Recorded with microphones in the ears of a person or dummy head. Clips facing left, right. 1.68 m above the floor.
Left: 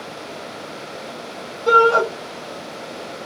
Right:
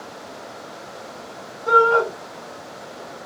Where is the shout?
45° left (ahead or behind), 1.2 m.